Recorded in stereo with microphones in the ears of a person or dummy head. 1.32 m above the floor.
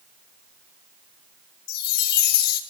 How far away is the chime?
About 1.7 m.